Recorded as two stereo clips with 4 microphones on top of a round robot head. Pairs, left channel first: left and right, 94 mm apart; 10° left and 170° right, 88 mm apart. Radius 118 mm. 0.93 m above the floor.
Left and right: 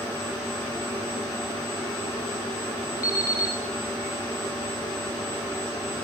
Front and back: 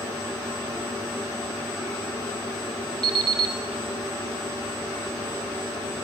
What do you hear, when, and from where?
3.0 s an alarm clock: 150° left, 2 m